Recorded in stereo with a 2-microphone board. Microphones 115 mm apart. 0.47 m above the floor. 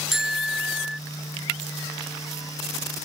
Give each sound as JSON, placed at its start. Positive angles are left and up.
{"t": 0.1, "sound": "a bicycle bell", "side_deg": -5}